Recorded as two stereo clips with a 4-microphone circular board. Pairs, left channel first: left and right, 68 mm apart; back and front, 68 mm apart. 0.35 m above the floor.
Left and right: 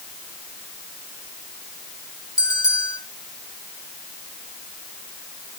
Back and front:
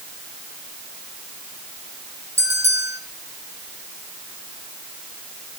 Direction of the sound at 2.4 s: 55° left.